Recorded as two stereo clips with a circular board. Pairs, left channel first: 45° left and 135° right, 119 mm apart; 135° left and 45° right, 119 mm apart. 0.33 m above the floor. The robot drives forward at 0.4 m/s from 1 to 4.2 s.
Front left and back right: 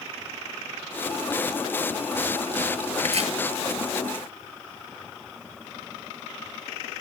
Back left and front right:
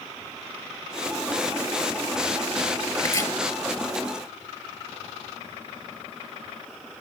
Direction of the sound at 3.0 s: 165° right.